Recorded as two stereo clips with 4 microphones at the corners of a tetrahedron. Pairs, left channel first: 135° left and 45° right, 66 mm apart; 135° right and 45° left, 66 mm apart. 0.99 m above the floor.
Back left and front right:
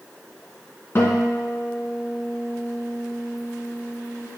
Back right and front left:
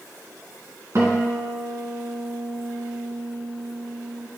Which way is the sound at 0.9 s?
85° left.